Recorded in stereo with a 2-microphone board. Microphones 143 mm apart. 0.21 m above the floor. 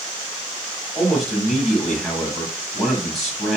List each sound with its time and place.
0.9 s a man speaking: centre (ahead or behind), 1.6 m